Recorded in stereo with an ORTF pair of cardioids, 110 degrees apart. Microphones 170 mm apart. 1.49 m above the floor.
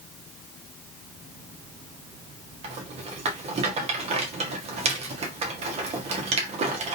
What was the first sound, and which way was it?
A rattle, 40° right.